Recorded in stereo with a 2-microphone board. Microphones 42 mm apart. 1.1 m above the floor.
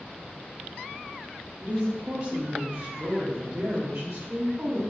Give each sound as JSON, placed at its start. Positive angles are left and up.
{"t": 1.6, "sound": "a woman speaking", "side_deg": -35, "distance_m": 1.4}